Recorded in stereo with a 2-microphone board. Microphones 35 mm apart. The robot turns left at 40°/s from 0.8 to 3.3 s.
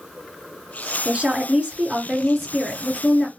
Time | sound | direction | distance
1.1 | a woman speaking | 130° right | 2 m